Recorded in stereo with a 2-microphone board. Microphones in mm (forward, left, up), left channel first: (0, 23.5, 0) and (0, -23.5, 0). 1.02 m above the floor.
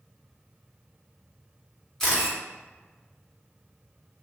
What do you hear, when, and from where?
2.0 s a camera shutter: 10° left (ahead or behind), 1.4 m